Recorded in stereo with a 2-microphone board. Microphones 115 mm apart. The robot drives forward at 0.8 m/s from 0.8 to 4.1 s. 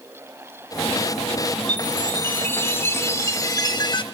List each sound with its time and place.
1.7 s a chime: 15° left (ahead or behind), 2.5 m; by 4.0 s 40° left (ahead or behind), 1.0 m